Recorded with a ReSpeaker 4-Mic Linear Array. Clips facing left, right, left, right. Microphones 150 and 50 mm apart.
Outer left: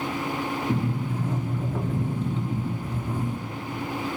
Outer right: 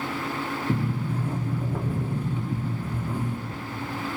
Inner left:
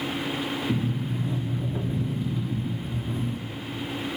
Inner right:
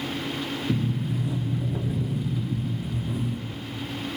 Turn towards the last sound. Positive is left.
turn(degrees=-10)  # may be behind; listen again after turning